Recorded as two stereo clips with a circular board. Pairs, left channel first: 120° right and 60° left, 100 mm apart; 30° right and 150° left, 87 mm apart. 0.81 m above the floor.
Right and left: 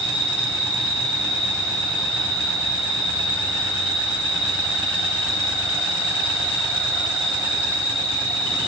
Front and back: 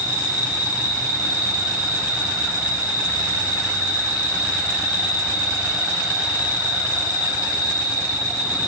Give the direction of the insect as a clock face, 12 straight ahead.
10 o'clock.